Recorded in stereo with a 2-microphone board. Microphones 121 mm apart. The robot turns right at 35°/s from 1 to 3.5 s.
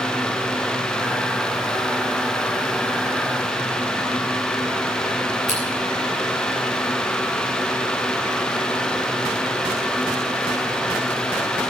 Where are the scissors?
75° right (ahead or behind), 8.5 m.